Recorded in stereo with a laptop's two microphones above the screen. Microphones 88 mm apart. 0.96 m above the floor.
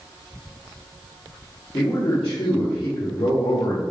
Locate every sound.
1.7 s a man speaking: 55° left (ahead or behind), 1.3 m; by 3.8 s 85° left, 3 m